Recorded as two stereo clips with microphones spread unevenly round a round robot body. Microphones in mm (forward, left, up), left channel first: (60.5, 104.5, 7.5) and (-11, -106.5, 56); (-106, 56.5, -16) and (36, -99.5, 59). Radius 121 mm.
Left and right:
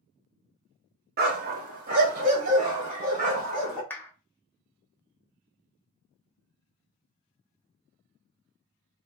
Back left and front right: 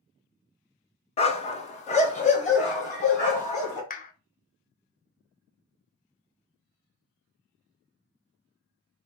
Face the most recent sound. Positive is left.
turn(degrees=140)